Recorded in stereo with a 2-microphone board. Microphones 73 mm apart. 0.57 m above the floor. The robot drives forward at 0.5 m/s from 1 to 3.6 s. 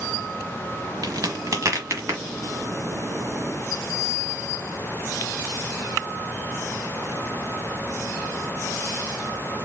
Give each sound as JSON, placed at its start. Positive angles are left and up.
{"t": 1.0, "sound": "a crack", "side_deg": -55, "distance_m": 1.0}